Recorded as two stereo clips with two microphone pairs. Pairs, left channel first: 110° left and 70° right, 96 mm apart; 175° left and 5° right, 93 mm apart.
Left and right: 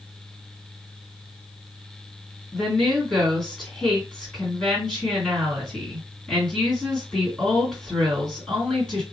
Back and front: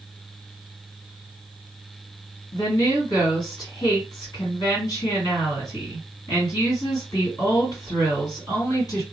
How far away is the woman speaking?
About 2.5 m.